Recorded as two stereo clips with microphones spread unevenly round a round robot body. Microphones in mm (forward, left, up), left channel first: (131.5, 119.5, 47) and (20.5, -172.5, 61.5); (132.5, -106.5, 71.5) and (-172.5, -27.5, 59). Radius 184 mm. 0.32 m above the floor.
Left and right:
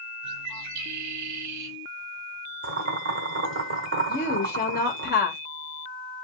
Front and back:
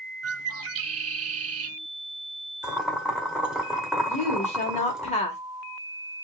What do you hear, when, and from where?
0.2 s a bird: 150° right, 0.7 m
2.6 s boiling: 110° right, 1.5 m
4.1 s a woman speaking: 45° left, 1.2 m